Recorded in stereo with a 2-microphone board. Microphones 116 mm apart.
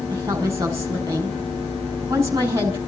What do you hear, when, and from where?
0.1 s a woman speaking: 25° right (ahead or behind), 6.5 m